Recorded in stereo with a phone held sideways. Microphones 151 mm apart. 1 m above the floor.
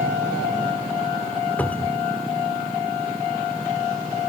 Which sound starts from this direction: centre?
A cupboard door, at 1.6 s.